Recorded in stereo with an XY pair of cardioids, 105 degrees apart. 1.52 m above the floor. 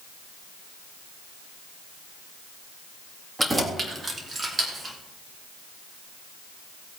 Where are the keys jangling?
20° right, 2.0 m; by 5.0 s 30° right, 3 m.